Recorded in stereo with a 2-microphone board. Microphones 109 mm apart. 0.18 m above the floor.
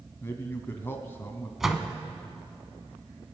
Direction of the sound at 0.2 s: 20° left (ahead or behind).